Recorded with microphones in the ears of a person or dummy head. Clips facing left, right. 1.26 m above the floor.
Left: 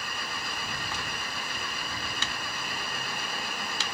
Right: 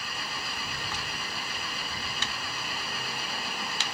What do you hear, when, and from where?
0.0 s an engine running: 45° left (ahead or behind)